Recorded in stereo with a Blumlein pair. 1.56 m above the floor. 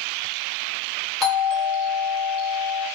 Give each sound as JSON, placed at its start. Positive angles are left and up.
{"t": 1.2, "sound": "a doorbell", "azimuth_deg": 5, "distance_m": 2.0}